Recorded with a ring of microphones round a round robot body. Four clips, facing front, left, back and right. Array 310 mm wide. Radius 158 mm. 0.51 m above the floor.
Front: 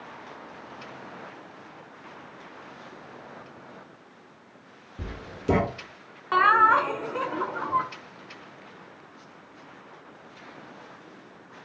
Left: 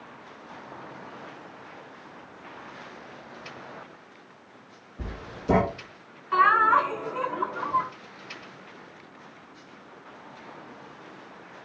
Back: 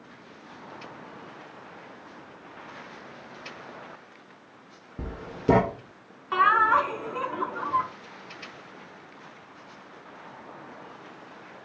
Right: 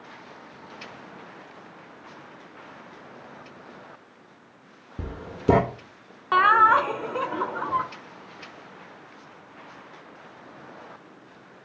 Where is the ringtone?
I don't hear a ringtone.